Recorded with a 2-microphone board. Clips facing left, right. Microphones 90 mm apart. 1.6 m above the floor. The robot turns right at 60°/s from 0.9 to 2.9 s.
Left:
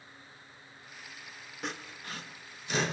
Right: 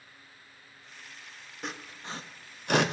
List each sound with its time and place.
1.6 s sawing: centre (ahead or behind), 0.6 m; by 2.9 s 70° right (ahead or behind), 0.6 m